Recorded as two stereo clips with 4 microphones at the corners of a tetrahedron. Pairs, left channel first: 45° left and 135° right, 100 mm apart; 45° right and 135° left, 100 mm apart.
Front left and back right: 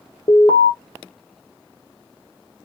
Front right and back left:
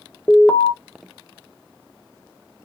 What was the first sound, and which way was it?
An alarm, 25° left.